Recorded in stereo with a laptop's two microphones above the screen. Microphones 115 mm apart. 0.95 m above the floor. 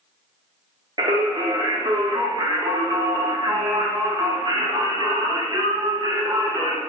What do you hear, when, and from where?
1.0 s singing: 35° right (ahead or behind), 0.6 m